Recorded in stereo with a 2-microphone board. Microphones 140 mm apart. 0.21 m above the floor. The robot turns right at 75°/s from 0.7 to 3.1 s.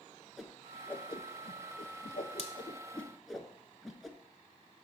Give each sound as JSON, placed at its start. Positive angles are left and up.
{"t": 0.4, "sound": "a whoosh", "side_deg": 0, "distance_m": 0.9}